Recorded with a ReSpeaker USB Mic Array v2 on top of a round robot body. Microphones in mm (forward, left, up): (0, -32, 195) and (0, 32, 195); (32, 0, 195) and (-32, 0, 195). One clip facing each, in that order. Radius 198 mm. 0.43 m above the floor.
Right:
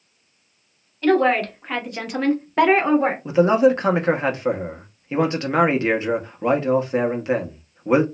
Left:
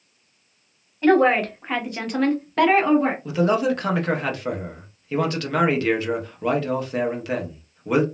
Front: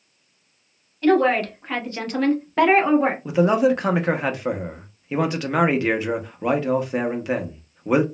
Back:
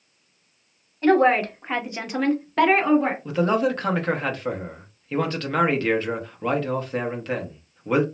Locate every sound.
1.0 s a woman speaking: 145° left, 1.3 m; by 3.1 s 60° right, 1.2 m
3.2 s a man speaking: 65° right, 0.9 m